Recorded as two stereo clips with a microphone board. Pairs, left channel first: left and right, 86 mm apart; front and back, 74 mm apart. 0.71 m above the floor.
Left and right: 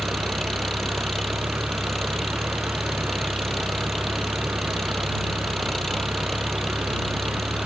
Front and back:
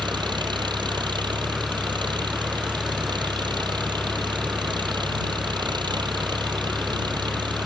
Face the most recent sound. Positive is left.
turn(degrees=180)